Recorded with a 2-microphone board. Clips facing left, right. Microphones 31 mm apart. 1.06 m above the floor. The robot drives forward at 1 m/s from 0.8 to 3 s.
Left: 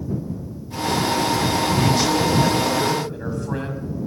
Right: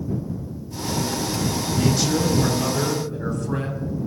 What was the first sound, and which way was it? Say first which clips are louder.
A man speaking: even; 15° left (ahead or behind).